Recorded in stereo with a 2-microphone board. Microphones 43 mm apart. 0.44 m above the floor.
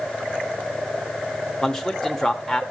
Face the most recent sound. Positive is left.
turn(degrees=10)  # may be behind; listen again after turning